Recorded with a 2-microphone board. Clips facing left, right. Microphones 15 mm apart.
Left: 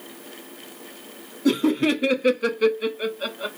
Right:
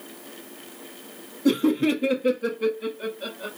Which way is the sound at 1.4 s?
10° left (ahead or behind).